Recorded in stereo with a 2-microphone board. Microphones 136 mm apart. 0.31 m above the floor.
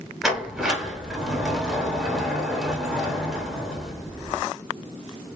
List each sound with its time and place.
0.2 s a sliding door: 5° right (ahead or behind), 0.8 m